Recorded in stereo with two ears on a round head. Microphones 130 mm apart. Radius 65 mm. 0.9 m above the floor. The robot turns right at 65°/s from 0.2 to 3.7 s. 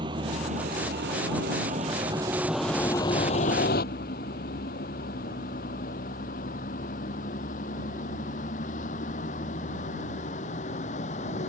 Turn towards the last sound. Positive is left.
turn(degrees=50)  # may be behind; listen again after turning